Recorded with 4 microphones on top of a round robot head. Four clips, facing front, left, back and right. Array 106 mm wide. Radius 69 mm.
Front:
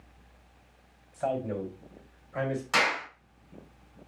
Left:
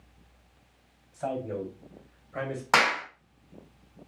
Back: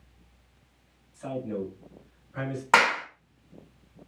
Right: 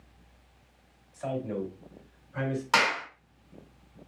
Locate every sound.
1.1 s a man speaking: 20° left, 3 m; by 2.6 s 40° left, 2 m
2.7 s a clap: 145° left, 2 m